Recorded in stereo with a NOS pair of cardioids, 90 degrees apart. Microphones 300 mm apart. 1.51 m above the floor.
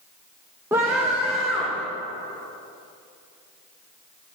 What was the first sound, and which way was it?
A scream, 10° right.